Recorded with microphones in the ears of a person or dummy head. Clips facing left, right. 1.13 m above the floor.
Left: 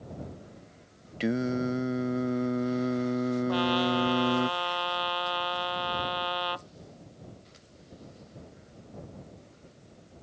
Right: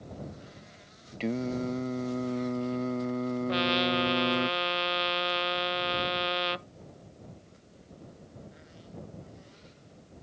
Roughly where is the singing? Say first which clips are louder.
Left 3 dB; centre.